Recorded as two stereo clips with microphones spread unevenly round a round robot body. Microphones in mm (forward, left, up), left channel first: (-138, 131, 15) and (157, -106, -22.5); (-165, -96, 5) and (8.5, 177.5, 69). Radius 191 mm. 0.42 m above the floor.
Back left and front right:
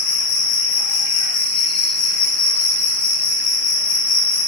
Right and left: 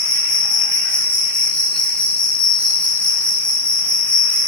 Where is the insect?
170° left, 3.5 m.